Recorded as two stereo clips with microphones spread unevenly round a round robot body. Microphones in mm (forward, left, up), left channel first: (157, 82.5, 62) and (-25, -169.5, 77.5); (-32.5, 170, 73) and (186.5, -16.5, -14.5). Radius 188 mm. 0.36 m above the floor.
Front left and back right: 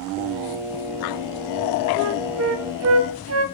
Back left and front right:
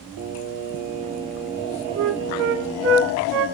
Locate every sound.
0.2 s singing: 45° right, 5 m
1.9 s a flute: 85° right, 2 m